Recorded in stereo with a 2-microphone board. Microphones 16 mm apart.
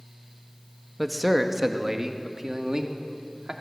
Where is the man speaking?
10° right (ahead or behind), 1.3 m; by 3.5 s 50° right (ahead or behind), 2.5 m.